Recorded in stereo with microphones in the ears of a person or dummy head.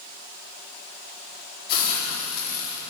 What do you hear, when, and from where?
1.7 s a hiss: 60° left (ahead or behind), 4 m